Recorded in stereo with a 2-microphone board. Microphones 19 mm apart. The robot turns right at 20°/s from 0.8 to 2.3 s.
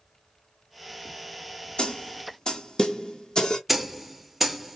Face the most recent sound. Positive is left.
turn(degrees=-5)  # may be behind; listen again after turning